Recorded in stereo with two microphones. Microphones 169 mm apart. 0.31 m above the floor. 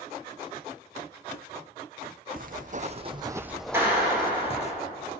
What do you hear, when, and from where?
2.4 s footsteps: 60° right (ahead or behind), 0.9 m; by 4.7 s 40° left (ahead or behind), 1.0 m
3.7 s a clap: 15° right (ahead or behind), 5.5 m